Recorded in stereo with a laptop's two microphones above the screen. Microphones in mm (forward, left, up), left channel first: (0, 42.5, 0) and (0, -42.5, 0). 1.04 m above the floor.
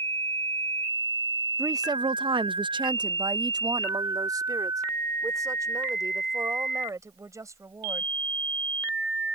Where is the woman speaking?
35° right (ahead or behind); by 8.1 s 40° right (ahead or behind).